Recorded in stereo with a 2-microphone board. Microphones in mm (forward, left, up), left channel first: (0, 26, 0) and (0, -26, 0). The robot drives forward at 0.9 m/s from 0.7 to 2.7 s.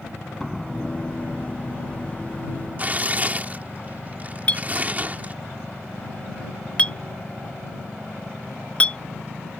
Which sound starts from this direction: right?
Tearing paper, at 2.8 s.